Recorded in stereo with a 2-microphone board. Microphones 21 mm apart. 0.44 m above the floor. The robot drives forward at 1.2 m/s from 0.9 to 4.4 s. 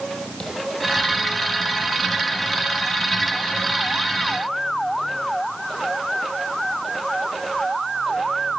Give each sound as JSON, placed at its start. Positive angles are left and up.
{"t": 0.4, "sound": "tapping", "side_deg": 40, "distance_m": 10.0}